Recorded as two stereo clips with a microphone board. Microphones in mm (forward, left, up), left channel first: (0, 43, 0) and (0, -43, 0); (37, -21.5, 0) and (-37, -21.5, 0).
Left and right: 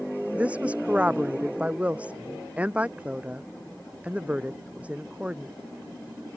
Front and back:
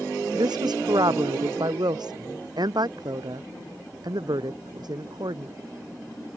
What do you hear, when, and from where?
0.3 s a woman speaking: 165° right